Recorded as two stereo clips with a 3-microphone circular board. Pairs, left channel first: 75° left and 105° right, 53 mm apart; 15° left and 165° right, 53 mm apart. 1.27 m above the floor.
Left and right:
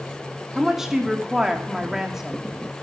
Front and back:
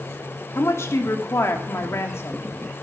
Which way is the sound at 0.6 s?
25° right.